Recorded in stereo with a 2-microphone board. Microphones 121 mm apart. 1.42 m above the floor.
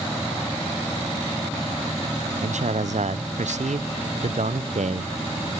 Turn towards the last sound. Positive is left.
turn(degrees=-75)  # may be behind; listen again after turning